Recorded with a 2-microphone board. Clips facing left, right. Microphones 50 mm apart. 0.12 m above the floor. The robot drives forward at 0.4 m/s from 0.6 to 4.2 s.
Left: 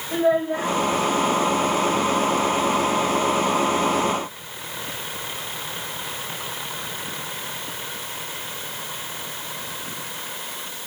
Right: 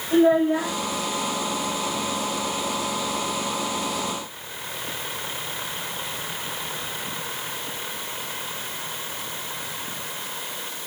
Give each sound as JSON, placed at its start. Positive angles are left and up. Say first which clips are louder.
{"t": 0.1, "sound": "a child speaking", "louder": "right 3 dB", "side_deg": -5, "distance_m": 4.0}